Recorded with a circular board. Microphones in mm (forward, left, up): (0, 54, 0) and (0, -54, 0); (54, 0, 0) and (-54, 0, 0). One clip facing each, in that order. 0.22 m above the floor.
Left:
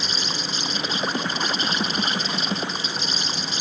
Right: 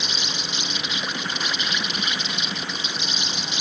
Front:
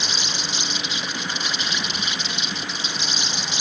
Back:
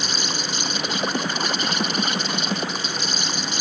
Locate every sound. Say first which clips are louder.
0.0 s an insect: left 2 dB, back 2 dB; 140° left